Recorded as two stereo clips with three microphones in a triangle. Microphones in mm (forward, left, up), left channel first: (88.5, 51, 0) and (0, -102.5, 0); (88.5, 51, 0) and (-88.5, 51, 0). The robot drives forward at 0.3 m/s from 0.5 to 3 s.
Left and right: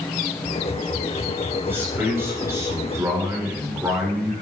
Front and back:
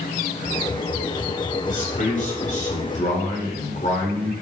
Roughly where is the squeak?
I don't hear a squeak.